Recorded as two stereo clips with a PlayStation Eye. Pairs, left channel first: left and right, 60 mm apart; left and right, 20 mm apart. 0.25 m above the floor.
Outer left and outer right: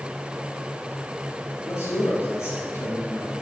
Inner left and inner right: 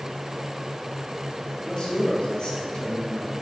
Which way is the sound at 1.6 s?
55° left (ahead or behind).